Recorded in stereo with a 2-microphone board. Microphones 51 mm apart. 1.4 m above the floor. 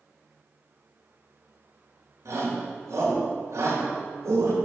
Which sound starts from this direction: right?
A shout, at 2.2 s.